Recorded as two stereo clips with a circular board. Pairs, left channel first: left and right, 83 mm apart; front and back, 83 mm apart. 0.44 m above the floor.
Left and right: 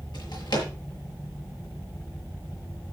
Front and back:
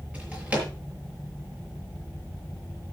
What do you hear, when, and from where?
0.1 s a drawer: 110° left, 5.5 m